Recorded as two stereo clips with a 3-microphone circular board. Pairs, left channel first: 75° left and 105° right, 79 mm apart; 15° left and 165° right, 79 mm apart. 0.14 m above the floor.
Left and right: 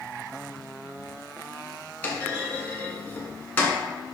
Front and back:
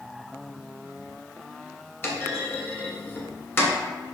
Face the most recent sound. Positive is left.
turn(degrees=30)